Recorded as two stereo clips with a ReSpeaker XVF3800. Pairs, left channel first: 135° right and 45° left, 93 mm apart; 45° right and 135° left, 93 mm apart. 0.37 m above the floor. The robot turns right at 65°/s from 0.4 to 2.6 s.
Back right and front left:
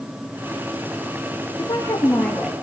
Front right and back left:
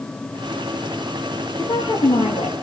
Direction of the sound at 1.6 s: 100° right.